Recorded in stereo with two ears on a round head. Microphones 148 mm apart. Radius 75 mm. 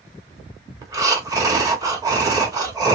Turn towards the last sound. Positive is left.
turn(degrees=-20)  # may be behind; listen again after turning